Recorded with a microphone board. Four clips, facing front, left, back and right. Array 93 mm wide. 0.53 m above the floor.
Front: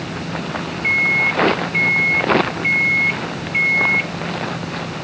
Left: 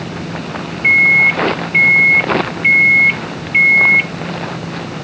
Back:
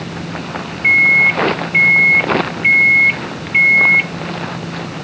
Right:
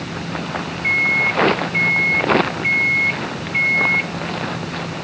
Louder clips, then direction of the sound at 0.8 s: Left 8 dB, back 6 dB; 130° left.